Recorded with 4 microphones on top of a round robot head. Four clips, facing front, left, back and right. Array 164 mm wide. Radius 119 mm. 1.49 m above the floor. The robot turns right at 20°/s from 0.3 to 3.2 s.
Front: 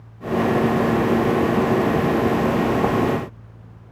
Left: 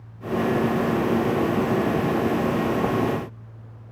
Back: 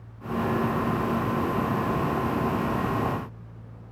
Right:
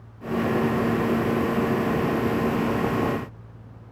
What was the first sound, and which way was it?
Only background noise.